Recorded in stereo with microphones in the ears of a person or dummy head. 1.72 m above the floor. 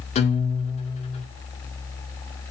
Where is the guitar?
35° left (ahead or behind), 2 m.